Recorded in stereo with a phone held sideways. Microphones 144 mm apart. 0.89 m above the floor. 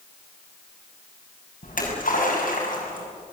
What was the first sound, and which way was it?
A splash, 70° left (ahead or behind).